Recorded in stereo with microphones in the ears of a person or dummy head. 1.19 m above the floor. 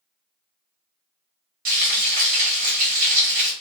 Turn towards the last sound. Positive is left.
turn(degrees=-45)  # may be behind; listen again after turning